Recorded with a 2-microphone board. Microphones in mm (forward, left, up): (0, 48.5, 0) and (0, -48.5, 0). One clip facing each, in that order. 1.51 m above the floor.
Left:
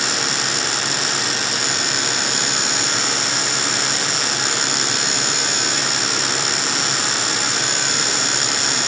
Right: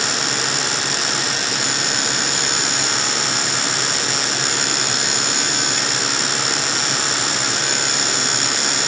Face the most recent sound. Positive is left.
No sound to turn to.